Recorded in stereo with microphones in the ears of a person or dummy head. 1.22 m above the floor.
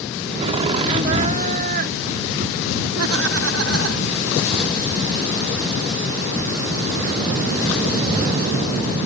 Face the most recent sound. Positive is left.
turn(degrees=-90)